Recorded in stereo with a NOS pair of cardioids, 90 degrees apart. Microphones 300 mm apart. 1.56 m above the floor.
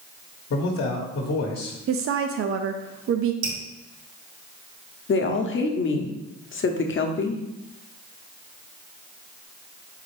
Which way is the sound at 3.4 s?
70° right.